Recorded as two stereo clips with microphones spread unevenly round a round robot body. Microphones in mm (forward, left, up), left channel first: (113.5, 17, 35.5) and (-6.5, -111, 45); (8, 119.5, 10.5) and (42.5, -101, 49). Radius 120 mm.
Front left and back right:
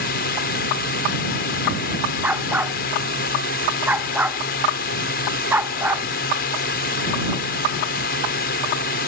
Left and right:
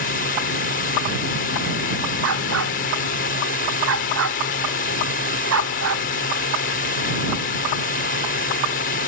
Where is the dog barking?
55° right.